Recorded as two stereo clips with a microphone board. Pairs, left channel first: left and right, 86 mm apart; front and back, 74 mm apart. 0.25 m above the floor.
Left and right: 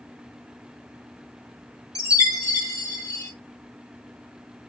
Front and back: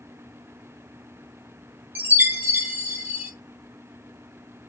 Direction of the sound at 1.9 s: 120° left.